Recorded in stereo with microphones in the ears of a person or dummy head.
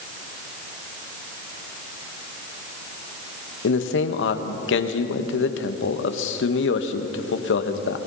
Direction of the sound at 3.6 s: 85° left.